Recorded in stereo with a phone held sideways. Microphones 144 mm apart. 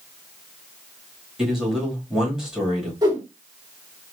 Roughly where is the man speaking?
Centre.